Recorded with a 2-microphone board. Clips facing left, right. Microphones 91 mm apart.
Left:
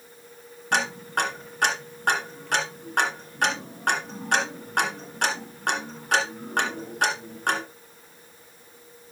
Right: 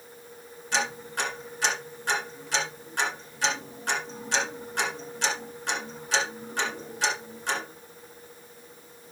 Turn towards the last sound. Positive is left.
turn(degrees=60)  # may be behind; listen again after turning